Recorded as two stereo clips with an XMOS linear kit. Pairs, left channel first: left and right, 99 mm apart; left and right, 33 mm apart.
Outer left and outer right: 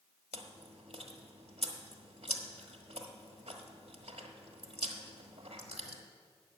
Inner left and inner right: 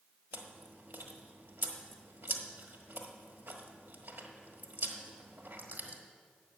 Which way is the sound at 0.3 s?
85° right.